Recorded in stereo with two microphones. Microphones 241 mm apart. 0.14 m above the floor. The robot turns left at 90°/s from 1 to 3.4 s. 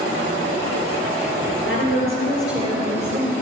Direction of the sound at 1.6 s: 70° left.